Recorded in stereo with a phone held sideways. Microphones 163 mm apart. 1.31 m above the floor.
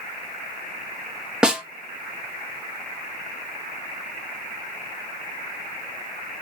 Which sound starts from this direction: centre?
A snare drum, at 1.4 s.